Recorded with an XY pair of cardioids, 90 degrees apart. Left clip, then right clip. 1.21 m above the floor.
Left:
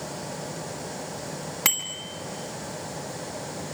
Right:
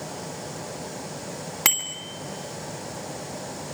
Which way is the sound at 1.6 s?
25° right.